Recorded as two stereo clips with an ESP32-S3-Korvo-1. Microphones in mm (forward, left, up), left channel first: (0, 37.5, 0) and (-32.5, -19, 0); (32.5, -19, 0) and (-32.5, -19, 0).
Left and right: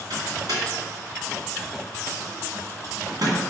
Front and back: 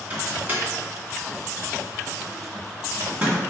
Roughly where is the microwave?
Behind right.